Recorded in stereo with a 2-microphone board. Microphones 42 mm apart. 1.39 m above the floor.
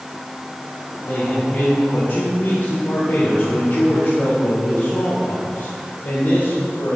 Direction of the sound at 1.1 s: 70° left (ahead or behind).